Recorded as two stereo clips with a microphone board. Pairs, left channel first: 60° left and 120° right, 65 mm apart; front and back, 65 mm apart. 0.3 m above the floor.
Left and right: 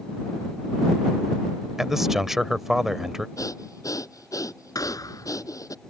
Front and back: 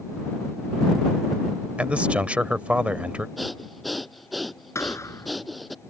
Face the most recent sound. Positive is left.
turn(degrees=40)